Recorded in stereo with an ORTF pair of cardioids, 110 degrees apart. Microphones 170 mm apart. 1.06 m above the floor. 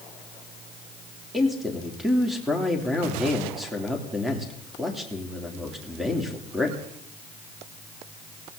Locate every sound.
1.3 s a man speaking: straight ahead, 3 m